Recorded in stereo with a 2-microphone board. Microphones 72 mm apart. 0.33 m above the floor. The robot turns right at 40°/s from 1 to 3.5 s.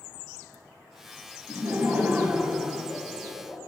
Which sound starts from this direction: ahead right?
Laughter, at 1.5 s.